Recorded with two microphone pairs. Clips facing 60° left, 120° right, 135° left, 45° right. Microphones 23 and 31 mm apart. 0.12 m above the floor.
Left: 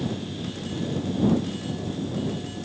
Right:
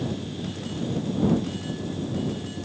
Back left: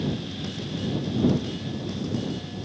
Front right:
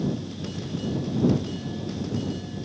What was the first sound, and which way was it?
Only background noise.